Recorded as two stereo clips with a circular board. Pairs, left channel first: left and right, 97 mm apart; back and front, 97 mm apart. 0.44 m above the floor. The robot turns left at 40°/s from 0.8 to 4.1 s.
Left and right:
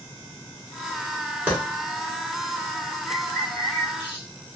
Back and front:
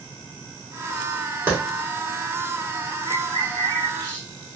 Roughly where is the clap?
Ahead right.